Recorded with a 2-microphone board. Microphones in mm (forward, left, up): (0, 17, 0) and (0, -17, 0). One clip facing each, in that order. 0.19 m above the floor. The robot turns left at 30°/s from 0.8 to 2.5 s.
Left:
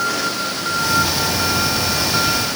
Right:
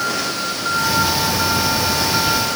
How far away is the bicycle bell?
I don't hear a bicycle bell.